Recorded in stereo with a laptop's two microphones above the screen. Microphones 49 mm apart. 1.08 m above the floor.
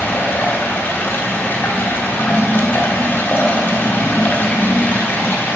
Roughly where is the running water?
Left.